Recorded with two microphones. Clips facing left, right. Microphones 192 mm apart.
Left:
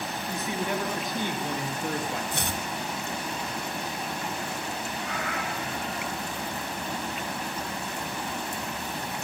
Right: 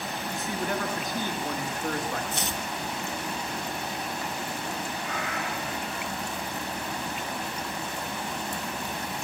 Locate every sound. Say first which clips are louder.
0.3 s a man speaking: left 1 dB; 20° left (ahead or behind), 6 m
2.3 s chopping: left 1 dB; 60° left (ahead or behind), 2.5 m
5.0 s a cat meowing: even; 60° left (ahead or behind), 9 m